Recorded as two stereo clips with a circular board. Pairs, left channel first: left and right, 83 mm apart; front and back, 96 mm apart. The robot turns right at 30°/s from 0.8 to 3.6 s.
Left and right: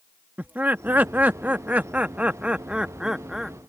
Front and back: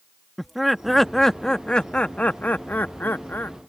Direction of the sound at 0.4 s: 90° right.